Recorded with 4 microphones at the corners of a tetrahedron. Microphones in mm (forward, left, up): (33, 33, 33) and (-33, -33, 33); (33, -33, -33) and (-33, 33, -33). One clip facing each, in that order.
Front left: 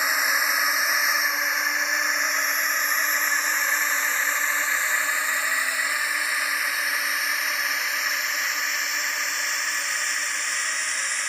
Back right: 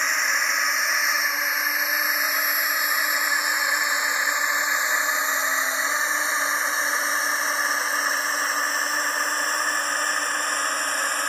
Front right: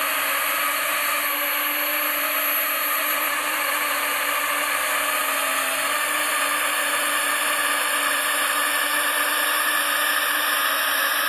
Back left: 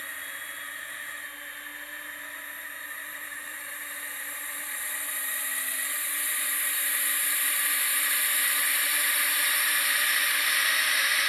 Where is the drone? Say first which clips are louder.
Even, front right 16 dB; 35° right; by 11.3 s 90° right.